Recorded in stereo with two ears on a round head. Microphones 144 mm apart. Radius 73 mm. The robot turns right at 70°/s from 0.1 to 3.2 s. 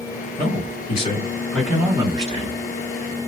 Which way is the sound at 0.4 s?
85° left.